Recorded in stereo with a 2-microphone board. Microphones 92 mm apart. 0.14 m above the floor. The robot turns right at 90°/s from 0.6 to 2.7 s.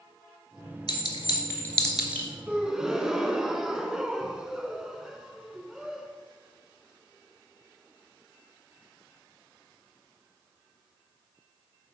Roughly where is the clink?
Left.